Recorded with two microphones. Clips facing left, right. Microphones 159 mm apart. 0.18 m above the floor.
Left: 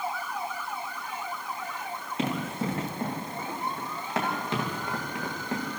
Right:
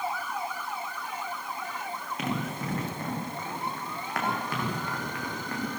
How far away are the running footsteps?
About 8.5 m.